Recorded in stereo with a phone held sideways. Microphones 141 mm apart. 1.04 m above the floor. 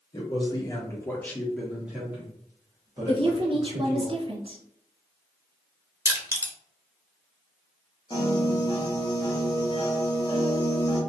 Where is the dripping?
I don't hear dripping.